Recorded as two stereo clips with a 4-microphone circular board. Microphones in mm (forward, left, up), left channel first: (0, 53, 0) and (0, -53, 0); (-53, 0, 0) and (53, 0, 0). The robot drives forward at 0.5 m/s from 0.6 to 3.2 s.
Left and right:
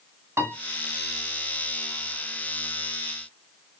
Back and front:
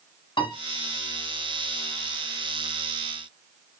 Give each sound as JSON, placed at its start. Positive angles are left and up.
{"t": 0.4, "sound": "a piano", "azimuth_deg": -150, "distance_m": 1.6}